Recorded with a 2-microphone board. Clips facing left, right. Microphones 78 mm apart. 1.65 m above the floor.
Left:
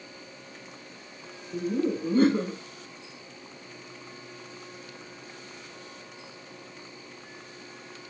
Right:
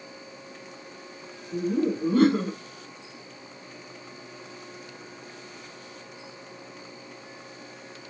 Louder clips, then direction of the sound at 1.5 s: Right 2 dB; 85° right.